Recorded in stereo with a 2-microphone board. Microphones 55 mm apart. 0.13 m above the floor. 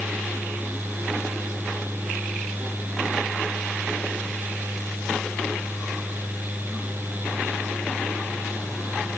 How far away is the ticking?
I don't hear ticking.